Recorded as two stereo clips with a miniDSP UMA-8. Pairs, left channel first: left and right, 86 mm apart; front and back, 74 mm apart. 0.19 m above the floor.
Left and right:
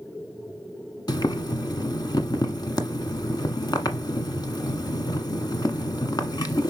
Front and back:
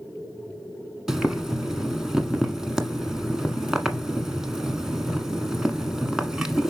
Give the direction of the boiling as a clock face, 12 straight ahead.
9 o'clock.